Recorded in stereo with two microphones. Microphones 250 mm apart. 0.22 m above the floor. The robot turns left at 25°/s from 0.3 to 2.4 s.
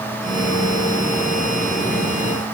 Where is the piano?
I don't hear a piano.